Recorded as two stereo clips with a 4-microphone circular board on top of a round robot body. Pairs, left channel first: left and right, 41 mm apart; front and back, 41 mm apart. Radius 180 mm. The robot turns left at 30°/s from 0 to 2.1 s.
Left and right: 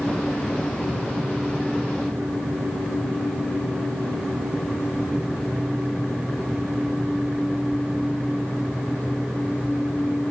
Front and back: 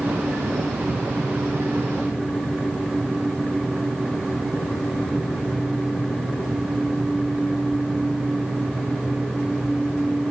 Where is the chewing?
No chewing in this recording.